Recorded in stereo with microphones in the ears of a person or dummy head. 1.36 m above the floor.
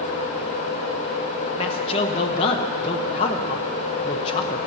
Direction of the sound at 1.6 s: 30° left (ahead or behind).